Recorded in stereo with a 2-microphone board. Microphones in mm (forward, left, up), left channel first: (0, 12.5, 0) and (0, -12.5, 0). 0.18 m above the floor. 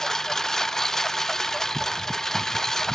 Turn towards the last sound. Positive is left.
turn(degrees=15)  # may be behind; listen again after turning